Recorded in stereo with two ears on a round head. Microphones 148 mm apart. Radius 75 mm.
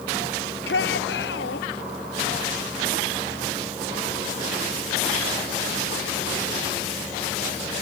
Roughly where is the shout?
Left.